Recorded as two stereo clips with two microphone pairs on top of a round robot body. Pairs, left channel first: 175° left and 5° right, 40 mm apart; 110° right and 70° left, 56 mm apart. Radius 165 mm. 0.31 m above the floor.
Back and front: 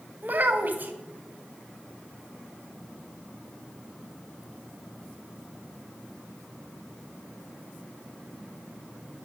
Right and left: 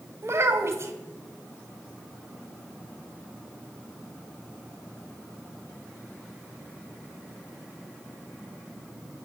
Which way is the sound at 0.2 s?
30° left.